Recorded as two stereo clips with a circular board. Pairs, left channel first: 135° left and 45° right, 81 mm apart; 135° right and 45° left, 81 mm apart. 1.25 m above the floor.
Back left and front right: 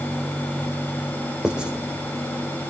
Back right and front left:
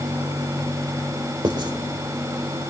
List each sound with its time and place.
1.4 s writing: 35° left, 2.5 m